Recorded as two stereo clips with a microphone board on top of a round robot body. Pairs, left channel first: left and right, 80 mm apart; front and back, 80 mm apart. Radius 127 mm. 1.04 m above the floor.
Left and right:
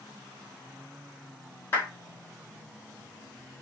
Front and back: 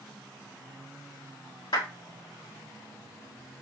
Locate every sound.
1.7 s a clap: 25° left, 3.5 m